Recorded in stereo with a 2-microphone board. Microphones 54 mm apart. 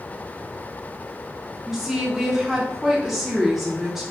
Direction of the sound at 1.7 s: 5° right (ahead or behind).